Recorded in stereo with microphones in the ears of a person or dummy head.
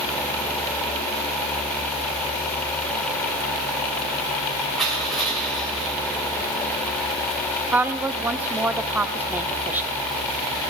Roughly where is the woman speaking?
Centre.